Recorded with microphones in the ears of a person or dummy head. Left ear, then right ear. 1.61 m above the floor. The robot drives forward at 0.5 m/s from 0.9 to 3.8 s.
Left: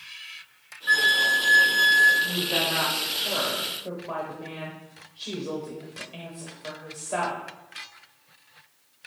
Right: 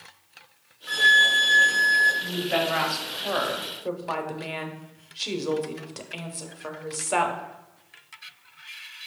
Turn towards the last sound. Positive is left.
turn(degrees=-65)  # may be behind; listen again after turning